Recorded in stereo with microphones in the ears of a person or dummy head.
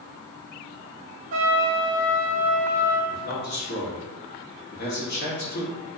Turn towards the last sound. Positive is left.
turn(degrees=60)  # may be behind; listen again after turning